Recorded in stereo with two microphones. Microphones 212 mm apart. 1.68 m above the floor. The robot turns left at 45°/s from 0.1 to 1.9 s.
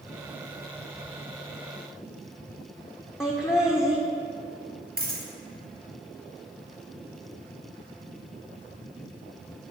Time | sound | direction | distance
3.2 | laughter | 10° left (ahead or behind) | 0.8 m
5.0 | a dropped coin | 45° right (ahead or behind) | 2.5 m